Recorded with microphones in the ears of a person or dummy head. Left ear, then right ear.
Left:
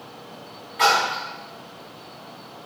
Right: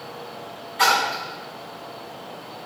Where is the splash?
5° right (ahead or behind), 1.4 m.